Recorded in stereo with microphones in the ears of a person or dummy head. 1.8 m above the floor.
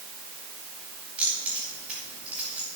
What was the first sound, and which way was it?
Keys jangling, 10° right (ahead or behind).